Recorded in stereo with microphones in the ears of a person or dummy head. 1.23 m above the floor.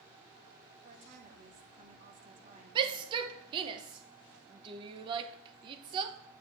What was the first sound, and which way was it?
A woman speaking, 40° right (ahead or behind).